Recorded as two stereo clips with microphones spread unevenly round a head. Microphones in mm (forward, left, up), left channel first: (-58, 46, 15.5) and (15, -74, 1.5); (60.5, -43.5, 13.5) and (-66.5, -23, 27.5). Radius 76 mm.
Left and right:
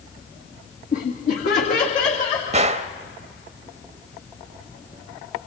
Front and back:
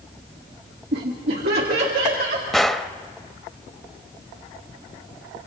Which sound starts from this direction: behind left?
Laughter, at 0.9 s.